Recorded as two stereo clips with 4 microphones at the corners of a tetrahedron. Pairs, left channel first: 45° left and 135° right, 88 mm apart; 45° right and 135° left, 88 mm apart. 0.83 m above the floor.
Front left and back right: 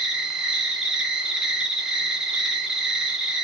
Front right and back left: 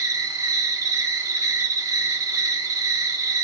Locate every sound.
0.0 s an insect: 145° left, 1.6 m